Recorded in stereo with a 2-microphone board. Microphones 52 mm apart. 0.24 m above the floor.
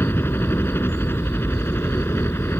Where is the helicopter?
50° left (ahead or behind).